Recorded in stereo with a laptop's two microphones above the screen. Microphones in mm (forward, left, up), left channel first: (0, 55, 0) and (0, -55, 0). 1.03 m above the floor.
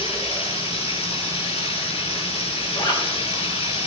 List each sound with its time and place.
0.0 s running water: 65° left (ahead or behind), 6.5 m
2.7 s a zipper: 45° left (ahead or behind), 3.5 m